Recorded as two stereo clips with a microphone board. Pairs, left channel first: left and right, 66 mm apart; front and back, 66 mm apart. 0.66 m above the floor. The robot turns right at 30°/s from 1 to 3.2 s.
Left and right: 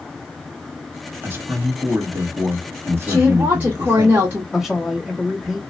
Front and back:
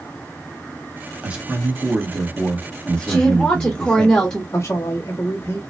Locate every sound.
1.2 s a man speaking: 125° right, 1.3 m; by 4.1 s 65° right, 1.3 m
3.1 s a woman speaking: 65° right, 1.1 m; by 4.4 s 60° right, 1.1 m
4.5 s a man speaking: 5° right, 1.2 m